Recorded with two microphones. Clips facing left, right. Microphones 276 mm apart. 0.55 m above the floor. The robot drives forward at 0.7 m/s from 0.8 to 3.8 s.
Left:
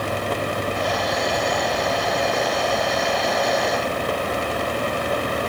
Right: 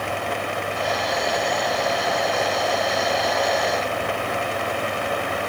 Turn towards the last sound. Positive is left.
No sound to turn to.